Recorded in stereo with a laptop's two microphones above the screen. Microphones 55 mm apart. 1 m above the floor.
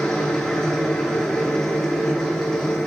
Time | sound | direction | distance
0.0 | a machine running | 10° left (ahead or behind) | 5.5 m